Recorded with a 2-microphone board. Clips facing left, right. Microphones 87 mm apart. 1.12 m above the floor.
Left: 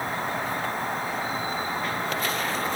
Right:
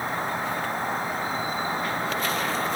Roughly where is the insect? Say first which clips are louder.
Right 1 dB; right.